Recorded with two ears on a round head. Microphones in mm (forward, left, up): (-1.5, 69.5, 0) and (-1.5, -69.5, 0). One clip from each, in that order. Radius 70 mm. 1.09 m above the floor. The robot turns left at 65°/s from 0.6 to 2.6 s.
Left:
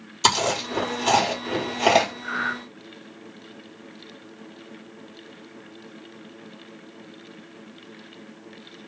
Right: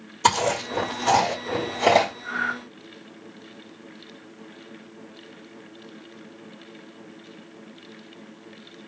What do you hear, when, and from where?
0.2 s chewing: 70° left (ahead or behind), 3 m; by 2.1 s 10° left (ahead or behind), 3 m
2.2 s breathing: 25° left (ahead or behind), 0.6 m; by 2.6 s centre (ahead or behind), 0.6 m